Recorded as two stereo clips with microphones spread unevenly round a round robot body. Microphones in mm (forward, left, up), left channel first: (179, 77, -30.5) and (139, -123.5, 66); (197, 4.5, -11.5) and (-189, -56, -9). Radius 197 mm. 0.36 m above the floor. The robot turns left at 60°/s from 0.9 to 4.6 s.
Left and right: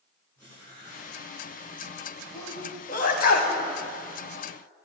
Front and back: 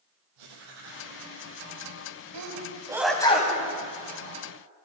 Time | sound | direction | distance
0.4 | writing | 165° left | 3 m
2.3 | a sneeze | 140° left | 1.7 m